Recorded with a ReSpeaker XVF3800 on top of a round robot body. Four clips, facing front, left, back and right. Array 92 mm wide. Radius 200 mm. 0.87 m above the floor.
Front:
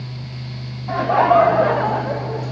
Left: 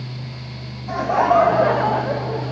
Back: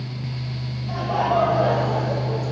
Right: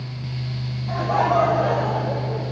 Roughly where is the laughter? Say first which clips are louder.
Left 3 dB, front 7 dB; ahead.